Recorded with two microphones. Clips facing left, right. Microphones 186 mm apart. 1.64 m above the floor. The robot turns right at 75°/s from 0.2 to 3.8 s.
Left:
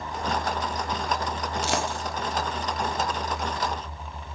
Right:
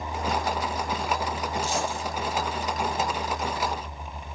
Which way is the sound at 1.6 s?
75° left (ahead or behind).